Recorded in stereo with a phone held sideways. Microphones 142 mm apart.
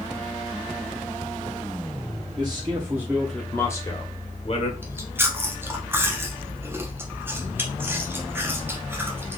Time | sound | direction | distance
2.4 | a man speaking | 35° right (ahead or behind) | 0.9 m
4.8 | chewing | 15° right (ahead or behind) | 0.7 m